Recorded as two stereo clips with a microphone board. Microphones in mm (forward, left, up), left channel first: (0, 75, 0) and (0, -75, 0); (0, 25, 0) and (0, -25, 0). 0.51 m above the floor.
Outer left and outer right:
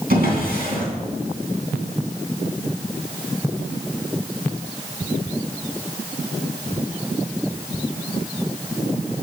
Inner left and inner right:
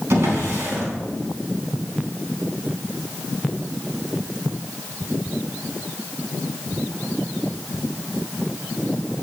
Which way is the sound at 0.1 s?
75° right (ahead or behind).